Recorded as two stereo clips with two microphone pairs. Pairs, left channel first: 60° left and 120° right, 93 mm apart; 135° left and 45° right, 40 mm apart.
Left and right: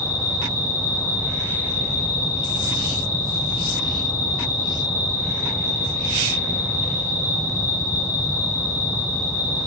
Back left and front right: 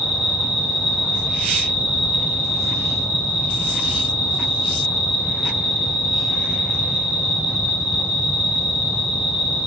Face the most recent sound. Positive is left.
turn(degrees=-15)